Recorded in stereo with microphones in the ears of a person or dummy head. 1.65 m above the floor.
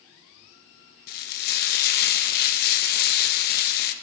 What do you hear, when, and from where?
1.1 s frying: 50° left (ahead or behind), 0.7 m